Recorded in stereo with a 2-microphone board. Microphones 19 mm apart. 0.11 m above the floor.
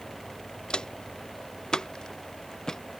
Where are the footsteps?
50° left (ahead or behind); by 2.8 s 35° left (ahead or behind).